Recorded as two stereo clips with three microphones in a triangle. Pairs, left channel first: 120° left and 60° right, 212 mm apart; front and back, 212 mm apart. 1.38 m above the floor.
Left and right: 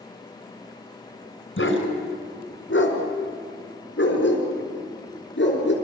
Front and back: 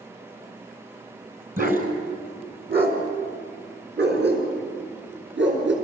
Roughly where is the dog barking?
Behind left.